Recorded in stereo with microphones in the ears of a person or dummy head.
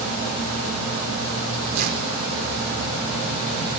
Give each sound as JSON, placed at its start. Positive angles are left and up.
{"t": 1.8, "sound": "tearing paper", "side_deg": -50, "distance_m": 4.0}